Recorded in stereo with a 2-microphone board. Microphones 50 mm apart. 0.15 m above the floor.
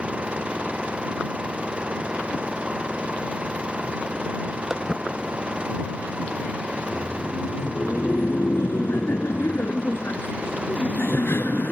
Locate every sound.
0.0 s an engine running: 20° right (ahead or behind)
4.7 s footsteps: 10° right (ahead or behind); by 6.6 s 5° right (ahead or behind)
6.7 s laughter: 50° left (ahead or behind)